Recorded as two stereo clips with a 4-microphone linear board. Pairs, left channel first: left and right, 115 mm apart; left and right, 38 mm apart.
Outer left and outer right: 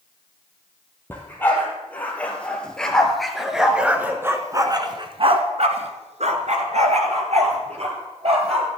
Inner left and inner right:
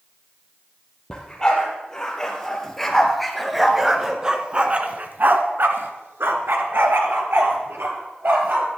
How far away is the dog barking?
About 3.5 m.